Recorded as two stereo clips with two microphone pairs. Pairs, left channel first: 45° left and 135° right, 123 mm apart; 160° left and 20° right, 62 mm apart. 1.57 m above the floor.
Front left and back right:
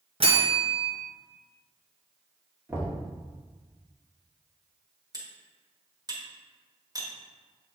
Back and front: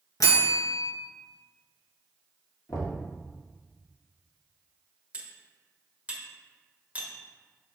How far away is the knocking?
About 1.9 m.